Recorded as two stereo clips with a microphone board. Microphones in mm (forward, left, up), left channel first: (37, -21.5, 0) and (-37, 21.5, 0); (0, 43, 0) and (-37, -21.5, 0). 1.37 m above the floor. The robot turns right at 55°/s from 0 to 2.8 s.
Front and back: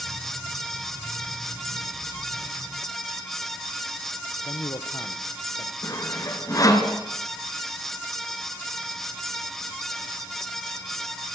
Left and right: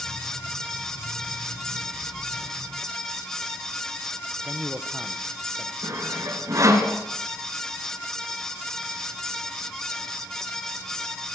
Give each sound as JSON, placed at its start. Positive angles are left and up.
{"t": 4.4, "sound": "a man speaking", "azimuth_deg": -60, "distance_m": 1.2}
{"t": 5.8, "sound": "sawing", "azimuth_deg": -75, "distance_m": 3.5}